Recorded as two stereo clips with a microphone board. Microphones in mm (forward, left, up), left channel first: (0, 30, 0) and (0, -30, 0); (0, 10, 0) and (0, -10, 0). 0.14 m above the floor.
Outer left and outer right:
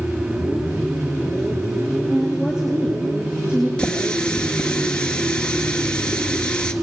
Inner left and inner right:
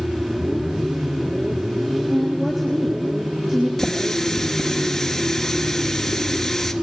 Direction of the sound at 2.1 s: 10° right (ahead or behind).